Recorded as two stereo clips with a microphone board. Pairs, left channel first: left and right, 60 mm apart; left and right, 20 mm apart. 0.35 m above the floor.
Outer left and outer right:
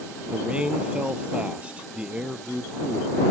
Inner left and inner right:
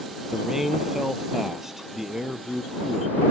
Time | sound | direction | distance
0.3 | a man speaking | 15° right (ahead or behind) | ?